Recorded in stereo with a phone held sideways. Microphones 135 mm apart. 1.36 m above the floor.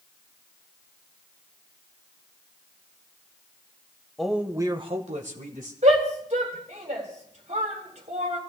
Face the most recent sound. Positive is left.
turn(degrees=-60)  # may be behind; listen again after turning